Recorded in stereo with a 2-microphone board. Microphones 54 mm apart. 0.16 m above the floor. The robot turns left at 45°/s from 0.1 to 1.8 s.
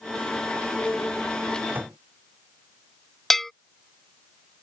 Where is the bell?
5° left (ahead or behind).